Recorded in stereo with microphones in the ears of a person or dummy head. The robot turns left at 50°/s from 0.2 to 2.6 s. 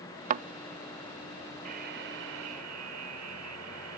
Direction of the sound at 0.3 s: 45° right (ahead or behind).